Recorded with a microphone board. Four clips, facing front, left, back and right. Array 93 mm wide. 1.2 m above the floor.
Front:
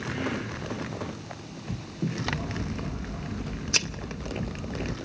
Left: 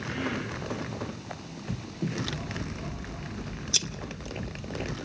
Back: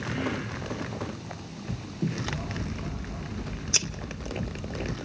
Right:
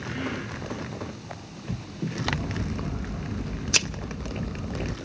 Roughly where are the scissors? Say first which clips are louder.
Right 5 dB, front 2 dB; right.